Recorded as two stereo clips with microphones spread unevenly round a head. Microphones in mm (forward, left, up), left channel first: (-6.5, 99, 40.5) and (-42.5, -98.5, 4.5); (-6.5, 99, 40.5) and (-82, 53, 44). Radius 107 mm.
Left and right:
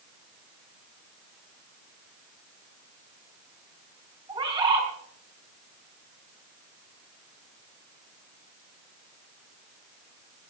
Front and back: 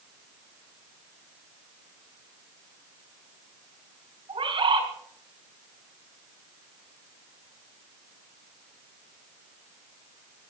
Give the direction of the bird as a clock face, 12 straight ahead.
6 o'clock.